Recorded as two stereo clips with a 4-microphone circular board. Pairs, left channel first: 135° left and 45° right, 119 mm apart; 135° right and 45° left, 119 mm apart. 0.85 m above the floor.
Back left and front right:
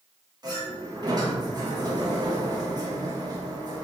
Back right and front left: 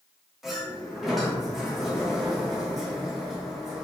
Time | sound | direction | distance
0.4 | a sliding door | 45° right | 1.1 m